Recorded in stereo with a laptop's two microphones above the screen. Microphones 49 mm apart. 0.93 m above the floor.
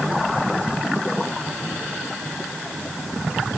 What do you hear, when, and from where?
Only background noise.